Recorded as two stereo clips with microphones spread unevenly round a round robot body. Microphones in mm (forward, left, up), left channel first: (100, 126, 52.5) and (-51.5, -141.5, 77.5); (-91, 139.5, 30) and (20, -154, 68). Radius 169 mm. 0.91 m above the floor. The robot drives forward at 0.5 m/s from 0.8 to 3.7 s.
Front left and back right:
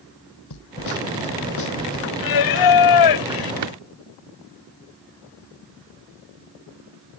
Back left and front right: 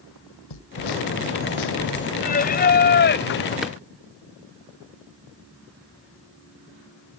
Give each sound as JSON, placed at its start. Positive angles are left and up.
{"t": 0.5, "sound": "a snare drum", "azimuth_deg": 95}
{"t": 2.2, "sound": "singing", "azimuth_deg": 45}
{"t": 3.6, "sound": "a drawer", "azimuth_deg": -160}